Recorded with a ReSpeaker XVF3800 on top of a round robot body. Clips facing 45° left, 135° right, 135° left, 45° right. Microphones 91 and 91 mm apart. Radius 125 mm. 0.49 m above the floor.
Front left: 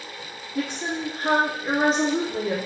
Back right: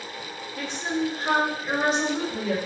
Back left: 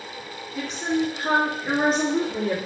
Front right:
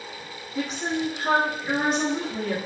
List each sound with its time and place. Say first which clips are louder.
0.6 s a woman speaking: even, back left 2 dB; 35° left, 1.3 m; by 2.6 s 105° left, 1.8 m